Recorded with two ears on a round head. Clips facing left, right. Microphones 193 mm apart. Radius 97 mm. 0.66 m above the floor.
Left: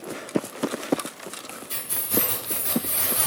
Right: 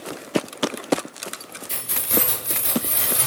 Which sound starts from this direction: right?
Keys jangling, at 1.7 s.